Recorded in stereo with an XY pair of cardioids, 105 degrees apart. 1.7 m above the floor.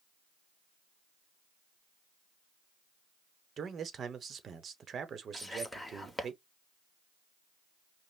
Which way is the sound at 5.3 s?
10° left.